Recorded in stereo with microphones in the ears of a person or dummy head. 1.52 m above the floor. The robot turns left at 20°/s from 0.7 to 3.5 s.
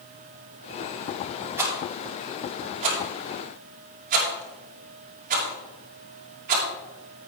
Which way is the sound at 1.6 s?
15° right (ahead or behind).